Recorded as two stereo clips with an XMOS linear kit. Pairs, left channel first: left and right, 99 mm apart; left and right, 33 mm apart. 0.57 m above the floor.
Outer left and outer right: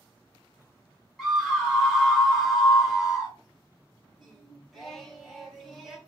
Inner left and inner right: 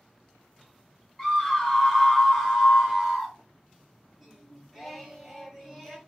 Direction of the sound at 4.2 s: Centre (ahead or behind).